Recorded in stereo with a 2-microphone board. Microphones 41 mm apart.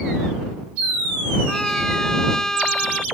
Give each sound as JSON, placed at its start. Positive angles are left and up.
{"t": 1.5, "sound": "a trumpet", "side_deg": 15}